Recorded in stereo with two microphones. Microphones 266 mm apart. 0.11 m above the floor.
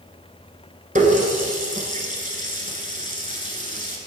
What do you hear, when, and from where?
0.9 s a running tap: 30° right (ahead or behind), 1.1 m